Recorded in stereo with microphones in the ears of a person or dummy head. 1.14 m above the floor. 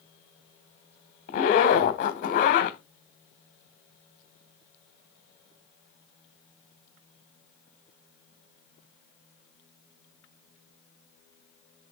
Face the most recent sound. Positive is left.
turn(degrees=35)  # may be behind; listen again after turning